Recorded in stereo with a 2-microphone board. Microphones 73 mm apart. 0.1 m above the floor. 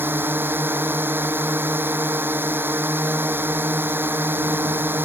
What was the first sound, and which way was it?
A drone, 30° right (ahead or behind).